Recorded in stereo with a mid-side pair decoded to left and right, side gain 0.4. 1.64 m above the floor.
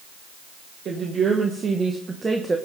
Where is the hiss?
No hiss in this recording.